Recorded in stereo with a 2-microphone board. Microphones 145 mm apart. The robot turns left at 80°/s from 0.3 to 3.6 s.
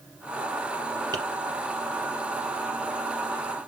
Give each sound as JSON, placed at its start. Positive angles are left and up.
{"t": 1.1, "sound": "tapping", "side_deg": -30, "distance_m": 3.5}